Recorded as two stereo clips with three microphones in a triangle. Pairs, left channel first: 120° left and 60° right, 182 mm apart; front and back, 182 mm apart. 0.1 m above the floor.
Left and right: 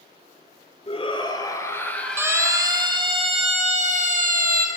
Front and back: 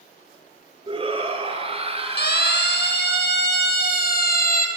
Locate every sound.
0.9 s a shout: 145° left, 1.8 m; by 3.0 s 130° right, 2 m
2.2 s a siren: 15° left, 3 m; by 4.7 s 30° right, 2.5 m